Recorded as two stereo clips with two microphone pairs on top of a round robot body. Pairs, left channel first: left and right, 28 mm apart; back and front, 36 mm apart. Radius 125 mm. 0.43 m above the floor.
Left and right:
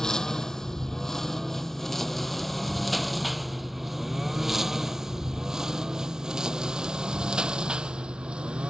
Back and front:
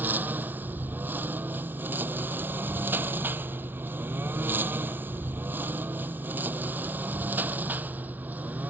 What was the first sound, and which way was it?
A lawn mower, 25° left.